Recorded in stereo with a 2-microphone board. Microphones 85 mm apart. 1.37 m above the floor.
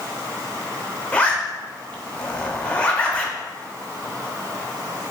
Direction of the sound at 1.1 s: 15° left (ahead or behind).